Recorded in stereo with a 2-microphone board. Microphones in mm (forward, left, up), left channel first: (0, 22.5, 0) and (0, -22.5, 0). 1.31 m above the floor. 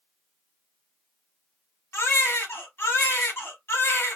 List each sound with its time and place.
1.9 s a baby crying: 65° left (ahead or behind), 3 m